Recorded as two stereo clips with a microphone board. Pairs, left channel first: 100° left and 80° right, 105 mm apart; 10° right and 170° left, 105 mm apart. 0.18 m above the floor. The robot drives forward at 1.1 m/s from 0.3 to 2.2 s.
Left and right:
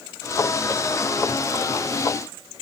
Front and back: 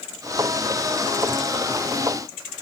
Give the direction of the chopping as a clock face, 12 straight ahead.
No chopping in this recording.